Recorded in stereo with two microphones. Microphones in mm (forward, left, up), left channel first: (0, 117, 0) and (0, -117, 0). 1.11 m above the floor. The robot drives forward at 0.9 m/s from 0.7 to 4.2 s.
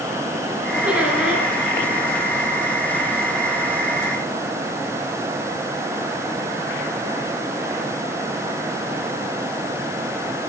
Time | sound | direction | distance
0.8 | a squeak | 5° right (ahead or behind) | 5.5 m